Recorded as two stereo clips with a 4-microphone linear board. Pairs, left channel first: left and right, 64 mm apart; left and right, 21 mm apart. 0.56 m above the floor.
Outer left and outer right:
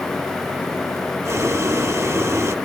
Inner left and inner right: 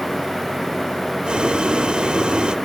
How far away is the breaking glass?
No breaking glass in this recording.